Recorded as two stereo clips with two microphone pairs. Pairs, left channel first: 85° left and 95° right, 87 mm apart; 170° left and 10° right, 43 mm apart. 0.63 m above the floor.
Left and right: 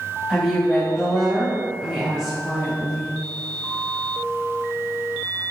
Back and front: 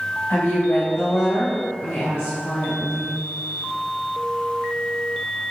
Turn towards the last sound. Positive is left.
turn(degrees=180)